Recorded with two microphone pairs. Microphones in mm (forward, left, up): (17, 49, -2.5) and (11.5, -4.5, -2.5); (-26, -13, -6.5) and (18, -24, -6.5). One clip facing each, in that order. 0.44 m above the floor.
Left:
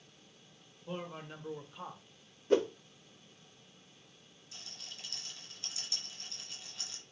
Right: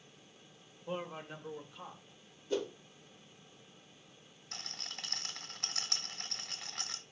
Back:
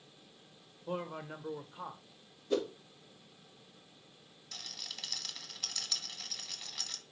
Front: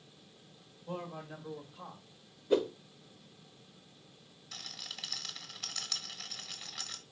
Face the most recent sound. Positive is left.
turn(degrees=-100)